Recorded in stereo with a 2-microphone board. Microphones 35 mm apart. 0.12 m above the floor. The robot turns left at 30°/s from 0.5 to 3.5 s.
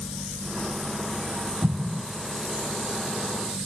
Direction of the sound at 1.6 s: 40° right (ahead or behind).